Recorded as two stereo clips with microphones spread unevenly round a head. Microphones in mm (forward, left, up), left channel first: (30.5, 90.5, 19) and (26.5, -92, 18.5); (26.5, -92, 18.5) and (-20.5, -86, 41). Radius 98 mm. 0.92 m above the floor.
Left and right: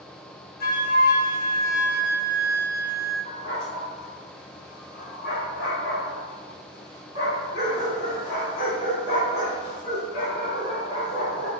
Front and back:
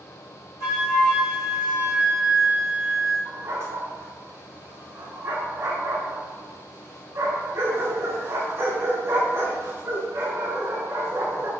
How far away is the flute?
About 1.4 m.